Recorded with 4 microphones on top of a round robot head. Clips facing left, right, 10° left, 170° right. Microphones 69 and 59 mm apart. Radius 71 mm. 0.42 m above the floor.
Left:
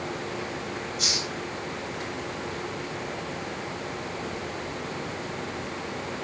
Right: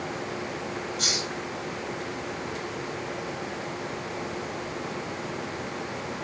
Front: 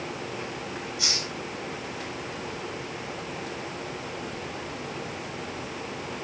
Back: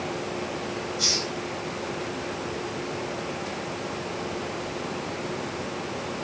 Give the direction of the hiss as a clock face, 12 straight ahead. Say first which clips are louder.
Right 1 dB, back 3 dB; 2 o'clock.